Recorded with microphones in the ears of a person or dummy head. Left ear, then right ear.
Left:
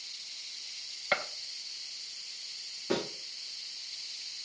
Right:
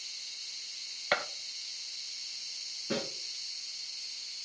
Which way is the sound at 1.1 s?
10° right (ahead or behind).